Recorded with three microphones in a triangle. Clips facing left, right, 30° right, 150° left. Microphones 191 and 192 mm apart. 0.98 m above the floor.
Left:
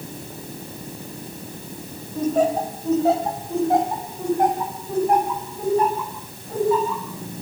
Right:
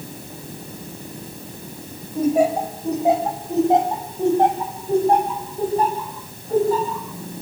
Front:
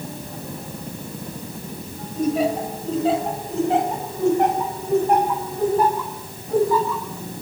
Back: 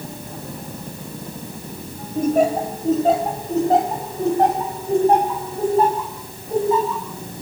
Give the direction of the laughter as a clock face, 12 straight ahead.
6 o'clock.